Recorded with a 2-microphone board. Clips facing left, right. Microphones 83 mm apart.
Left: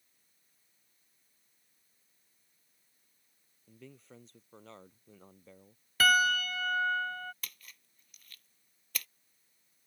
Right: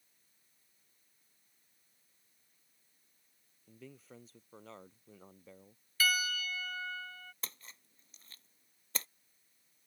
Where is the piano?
55° left (ahead or behind).